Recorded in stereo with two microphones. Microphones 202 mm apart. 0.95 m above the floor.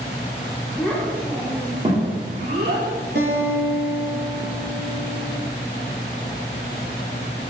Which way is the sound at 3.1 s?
55° right (ahead or behind).